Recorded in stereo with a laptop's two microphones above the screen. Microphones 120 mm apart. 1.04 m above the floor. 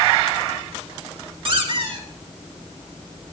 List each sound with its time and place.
1.4 s a squeak: 45° right (ahead or behind), 2.5 m